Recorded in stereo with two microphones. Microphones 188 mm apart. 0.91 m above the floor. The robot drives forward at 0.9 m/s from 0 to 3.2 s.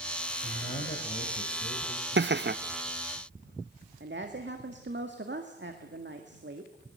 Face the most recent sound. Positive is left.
turn(degrees=-75)  # may be behind; listen again after turning